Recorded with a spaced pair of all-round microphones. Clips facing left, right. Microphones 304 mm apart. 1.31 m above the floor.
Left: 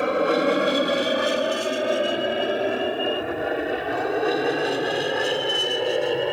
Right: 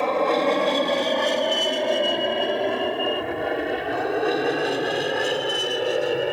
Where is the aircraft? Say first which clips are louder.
Left 1 dB; 15° left (ahead or behind); by 6.3 s 5° right (ahead or behind).